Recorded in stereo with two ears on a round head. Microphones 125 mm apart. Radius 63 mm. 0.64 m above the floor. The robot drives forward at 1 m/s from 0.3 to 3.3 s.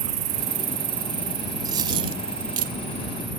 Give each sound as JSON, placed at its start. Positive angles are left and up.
{"t": 0.0, "sound": "an insect", "side_deg": -60}
{"t": 1.6, "sound": "a dropped coin", "side_deg": -30}